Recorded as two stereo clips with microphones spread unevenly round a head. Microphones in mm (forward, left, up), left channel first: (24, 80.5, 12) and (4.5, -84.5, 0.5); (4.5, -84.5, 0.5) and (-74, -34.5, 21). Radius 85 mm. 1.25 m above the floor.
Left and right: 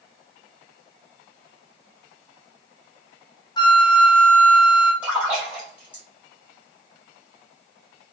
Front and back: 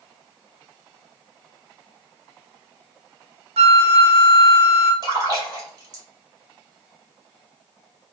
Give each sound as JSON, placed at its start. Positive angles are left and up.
{"t": 3.6, "sound": "a flute", "azimuth_deg": 150, "distance_m": 0.5}
{"t": 5.0, "sound": "a splash", "azimuth_deg": 180, "distance_m": 1.9}